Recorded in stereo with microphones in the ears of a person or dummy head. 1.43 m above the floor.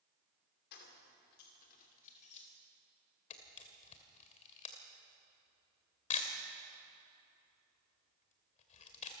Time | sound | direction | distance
0.7 | keys jangling | 55° left (ahead or behind) | 3 m
3.3 | a camera shutter | 40° left (ahead or behind) | 2 m